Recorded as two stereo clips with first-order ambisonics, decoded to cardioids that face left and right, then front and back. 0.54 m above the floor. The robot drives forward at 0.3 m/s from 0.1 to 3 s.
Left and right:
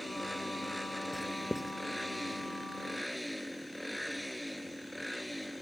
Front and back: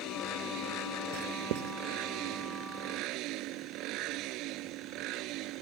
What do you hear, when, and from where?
1.1 s writing: straight behind